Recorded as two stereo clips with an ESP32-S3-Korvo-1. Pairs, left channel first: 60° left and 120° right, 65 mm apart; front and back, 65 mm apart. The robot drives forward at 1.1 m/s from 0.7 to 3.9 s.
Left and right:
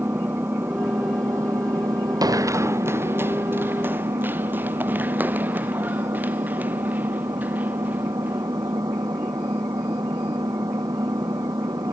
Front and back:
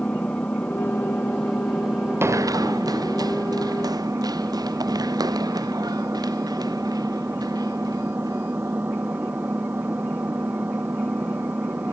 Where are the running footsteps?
130° right; by 8.7 s 175° left.